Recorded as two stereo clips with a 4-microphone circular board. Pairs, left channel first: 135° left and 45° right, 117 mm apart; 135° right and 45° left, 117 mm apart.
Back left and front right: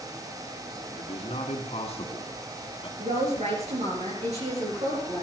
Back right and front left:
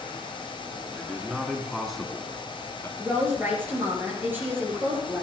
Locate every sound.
0.9 s a man speaking: 120° left, 2.5 m; by 2.9 s 165° left, 1.7 m
3.0 s a woman speaking: 25° right, 4.5 m